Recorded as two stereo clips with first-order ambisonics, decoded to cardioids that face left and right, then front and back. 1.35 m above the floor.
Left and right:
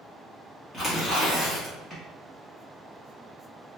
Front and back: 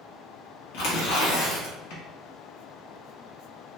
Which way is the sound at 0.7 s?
10° left.